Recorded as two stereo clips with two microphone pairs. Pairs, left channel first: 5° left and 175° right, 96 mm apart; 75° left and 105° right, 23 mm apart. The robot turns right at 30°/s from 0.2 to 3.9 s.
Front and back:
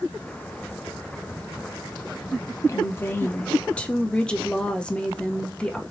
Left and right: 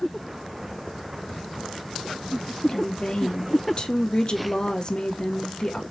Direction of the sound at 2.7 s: 40° left.